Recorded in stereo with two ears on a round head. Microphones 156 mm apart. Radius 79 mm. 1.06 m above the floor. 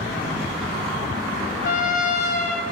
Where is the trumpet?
55° left (ahead or behind), 3.5 m.